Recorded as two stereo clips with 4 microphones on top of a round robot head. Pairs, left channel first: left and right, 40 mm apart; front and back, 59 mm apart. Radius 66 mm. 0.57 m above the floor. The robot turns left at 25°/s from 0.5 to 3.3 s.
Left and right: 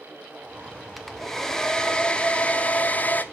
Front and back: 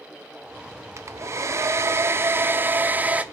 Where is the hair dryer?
Straight behind, 1.0 m; by 3.2 s 120° left, 1.0 m.